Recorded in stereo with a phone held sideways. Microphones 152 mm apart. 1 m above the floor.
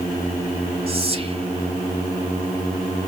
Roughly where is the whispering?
Right.